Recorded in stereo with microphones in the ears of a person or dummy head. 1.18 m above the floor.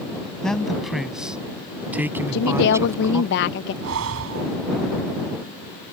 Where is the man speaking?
Centre (ahead or behind); by 3.3 s 20° right (ahead or behind).